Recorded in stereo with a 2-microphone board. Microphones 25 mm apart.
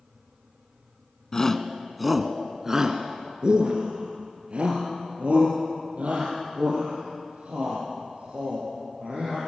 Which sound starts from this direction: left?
A shout, at 1.3 s.